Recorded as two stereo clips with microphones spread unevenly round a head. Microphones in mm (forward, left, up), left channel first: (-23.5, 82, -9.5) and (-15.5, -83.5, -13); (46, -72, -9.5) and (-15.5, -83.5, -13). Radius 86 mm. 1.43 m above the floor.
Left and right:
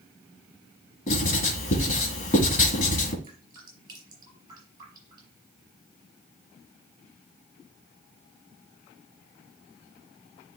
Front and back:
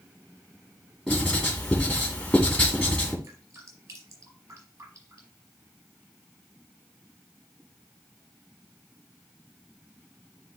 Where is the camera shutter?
No camera shutter in this recording.